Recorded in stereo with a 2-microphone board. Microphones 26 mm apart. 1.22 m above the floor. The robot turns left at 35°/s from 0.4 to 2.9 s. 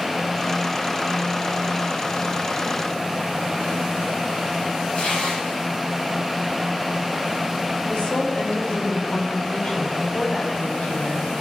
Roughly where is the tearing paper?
Left.